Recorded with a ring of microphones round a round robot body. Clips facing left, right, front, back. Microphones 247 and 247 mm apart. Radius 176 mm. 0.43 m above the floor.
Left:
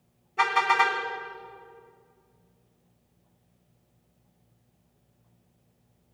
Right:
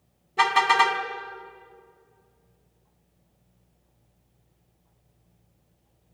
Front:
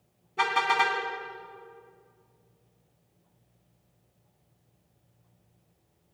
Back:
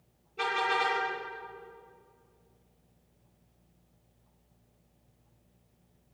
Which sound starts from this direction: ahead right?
A car horn, at 0.4 s.